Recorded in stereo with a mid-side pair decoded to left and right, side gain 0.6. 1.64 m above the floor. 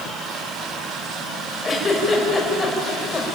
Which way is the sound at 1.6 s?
20° left.